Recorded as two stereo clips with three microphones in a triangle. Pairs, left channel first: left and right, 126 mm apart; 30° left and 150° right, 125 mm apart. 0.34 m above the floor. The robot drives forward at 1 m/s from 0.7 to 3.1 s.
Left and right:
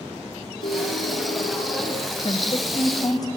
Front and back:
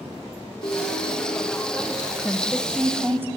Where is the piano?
80° left, 3 m; by 2.1 s 110° left, 3 m.